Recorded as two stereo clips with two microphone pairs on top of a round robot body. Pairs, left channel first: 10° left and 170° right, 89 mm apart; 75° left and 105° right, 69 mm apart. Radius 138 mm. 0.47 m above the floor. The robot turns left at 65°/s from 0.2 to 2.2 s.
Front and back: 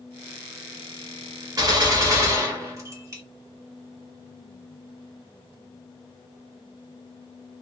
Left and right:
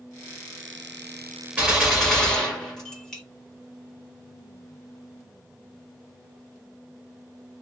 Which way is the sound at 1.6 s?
165° right.